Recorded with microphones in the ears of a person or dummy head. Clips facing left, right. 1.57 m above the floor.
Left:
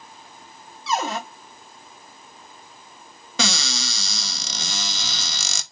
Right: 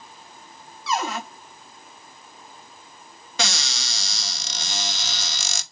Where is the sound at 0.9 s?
30° left (ahead or behind), 1.1 m.